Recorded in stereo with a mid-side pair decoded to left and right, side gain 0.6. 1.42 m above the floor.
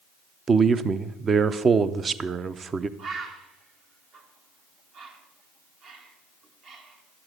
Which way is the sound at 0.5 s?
35° right.